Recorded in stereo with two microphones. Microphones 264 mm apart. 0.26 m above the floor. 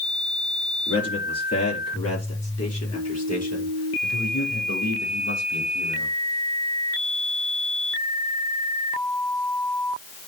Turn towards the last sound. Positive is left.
turn(degrees=80)